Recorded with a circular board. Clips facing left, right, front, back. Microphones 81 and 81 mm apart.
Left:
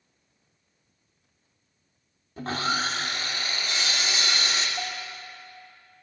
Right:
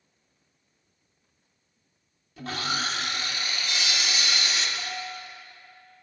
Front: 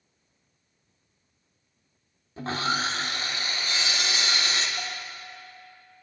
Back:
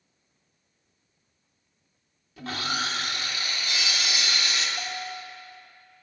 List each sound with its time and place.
2.4 s sawing: 50° left, 0.6 m
4.8 s a bell: 95° left, 0.9 m